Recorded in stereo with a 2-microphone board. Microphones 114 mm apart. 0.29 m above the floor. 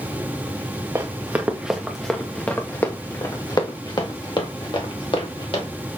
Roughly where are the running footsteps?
Right.